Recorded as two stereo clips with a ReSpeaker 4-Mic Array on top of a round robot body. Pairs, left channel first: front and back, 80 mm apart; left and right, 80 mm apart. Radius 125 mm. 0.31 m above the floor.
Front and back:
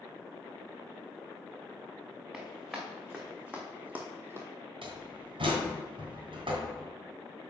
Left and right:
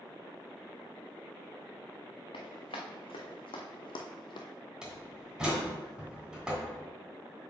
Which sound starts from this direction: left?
Running footsteps, at 2.3 s.